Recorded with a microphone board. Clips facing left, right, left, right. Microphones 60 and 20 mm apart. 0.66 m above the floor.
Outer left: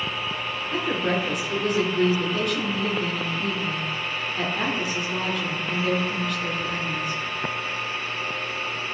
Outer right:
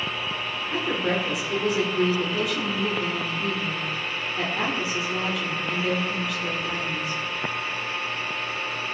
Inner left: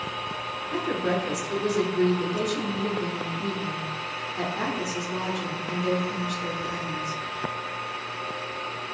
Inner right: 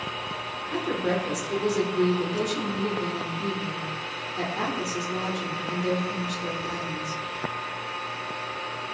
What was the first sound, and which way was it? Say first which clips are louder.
A woman speaking: outer left 1 dB, even; centre (ahead or behind).